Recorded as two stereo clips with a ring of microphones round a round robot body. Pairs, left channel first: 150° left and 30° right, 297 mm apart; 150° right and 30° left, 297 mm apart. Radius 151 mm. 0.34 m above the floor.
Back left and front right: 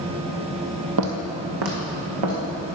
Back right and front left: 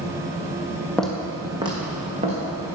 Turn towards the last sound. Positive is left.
turn(degrees=-40)